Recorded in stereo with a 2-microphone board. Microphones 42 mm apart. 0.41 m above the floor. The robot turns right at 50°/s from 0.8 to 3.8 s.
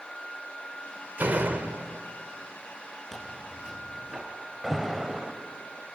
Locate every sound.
1.2 s a door slam: 105° right, 1.0 m; by 2.0 s 65° right, 1.0 m
3.1 s tearing paper: 170° left, 4 m; by 4.2 s 160° right, 4 m
4.6 s an alarm: 5° right (ahead or behind), 1.7 m